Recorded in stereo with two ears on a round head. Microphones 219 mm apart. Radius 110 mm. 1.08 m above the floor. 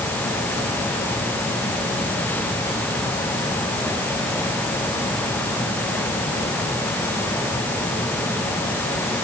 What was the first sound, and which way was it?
Only background noise.